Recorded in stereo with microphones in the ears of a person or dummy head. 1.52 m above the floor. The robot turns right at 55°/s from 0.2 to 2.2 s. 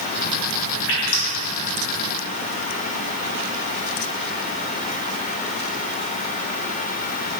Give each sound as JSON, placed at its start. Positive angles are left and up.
{"t": 0.9, "sound": "dripping", "side_deg": 70, "distance_m": 1.3}